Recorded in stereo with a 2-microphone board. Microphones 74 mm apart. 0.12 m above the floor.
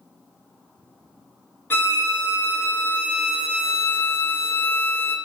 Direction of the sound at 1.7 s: 30° left (ahead or behind).